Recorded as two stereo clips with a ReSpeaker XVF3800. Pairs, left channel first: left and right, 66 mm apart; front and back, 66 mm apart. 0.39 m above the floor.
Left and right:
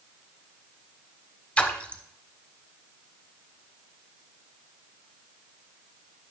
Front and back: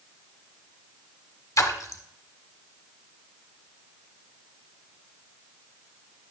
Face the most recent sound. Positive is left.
turn(degrees=20)